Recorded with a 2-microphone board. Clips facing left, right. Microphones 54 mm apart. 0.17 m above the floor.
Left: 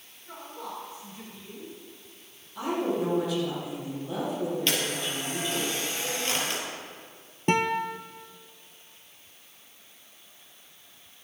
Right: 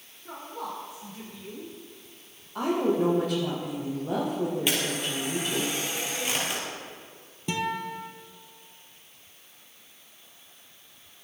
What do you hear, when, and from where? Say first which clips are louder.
0.2 s a woman speaking: right 3 dB; 75° right (ahead or behind), 5 m
2.5 s a woman speaking: right 3 dB; 55° right (ahead or behind), 6.5 m
4.7 s a camera shutter: right 1 dB; 10° right (ahead or behind), 4 m
7.5 s a guitar: left 5 dB; 50° left (ahead or behind), 0.8 m